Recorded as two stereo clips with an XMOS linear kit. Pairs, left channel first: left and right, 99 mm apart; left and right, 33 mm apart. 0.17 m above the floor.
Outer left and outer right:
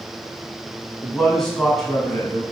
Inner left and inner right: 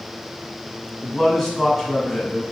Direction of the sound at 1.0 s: 5° left (ahead or behind).